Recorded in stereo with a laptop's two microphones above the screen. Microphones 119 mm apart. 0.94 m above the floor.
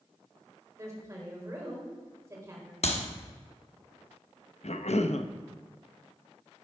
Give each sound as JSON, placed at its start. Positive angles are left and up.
{"t": 0.8, "sound": "a woman speaking", "side_deg": -25, "distance_m": 3.5}
{"t": 2.8, "sound": "a clap", "side_deg": 60, "distance_m": 1.2}
{"t": 4.6, "sound": "a cough", "side_deg": 65, "distance_m": 0.6}